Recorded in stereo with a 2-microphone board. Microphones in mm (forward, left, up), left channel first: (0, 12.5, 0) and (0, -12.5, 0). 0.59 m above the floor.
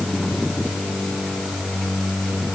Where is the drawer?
I don't hear a drawer.